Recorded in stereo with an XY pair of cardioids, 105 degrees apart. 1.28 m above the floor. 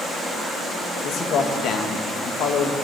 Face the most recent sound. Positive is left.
turn(degrees=70)